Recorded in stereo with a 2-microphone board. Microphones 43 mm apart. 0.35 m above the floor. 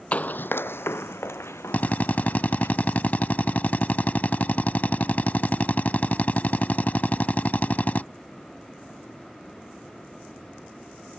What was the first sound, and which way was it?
Running footsteps, 30° left (ahead or behind).